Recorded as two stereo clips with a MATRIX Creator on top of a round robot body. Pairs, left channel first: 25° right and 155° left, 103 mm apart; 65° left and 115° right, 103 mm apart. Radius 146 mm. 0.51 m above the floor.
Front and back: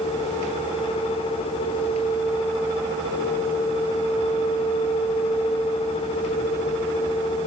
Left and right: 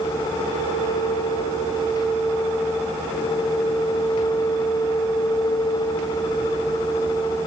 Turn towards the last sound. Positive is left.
No sound to turn to.